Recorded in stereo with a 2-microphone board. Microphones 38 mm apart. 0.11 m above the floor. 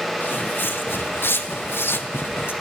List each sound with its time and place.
0.2 s footsteps: 70° left (ahead or behind), 3 m